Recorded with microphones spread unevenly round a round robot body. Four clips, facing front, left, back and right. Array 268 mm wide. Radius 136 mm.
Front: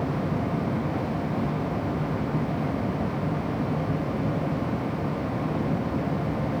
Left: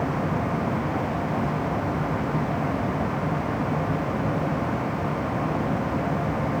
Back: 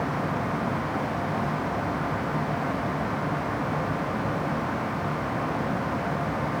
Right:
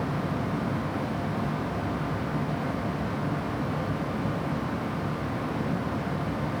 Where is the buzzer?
I don't hear a buzzer.